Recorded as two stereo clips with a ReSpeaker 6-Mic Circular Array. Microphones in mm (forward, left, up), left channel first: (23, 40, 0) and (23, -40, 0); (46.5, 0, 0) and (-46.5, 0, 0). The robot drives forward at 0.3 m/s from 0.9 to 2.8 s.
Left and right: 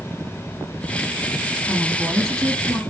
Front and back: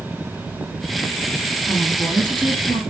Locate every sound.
1.7 s a woman speaking: 175° left, 2.5 m